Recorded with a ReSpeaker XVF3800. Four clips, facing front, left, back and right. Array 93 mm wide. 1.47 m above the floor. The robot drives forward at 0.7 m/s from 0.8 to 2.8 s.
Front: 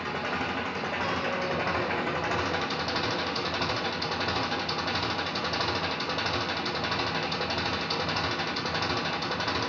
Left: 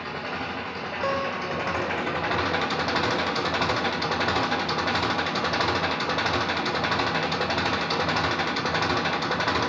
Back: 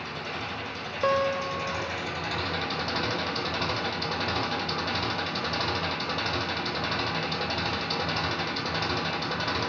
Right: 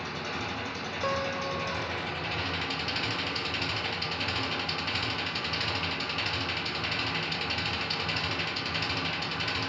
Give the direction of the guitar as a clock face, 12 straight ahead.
7 o'clock.